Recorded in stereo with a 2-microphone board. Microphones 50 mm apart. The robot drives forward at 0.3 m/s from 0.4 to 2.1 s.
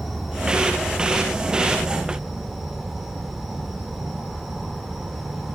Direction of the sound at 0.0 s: Centre (ahead or behind).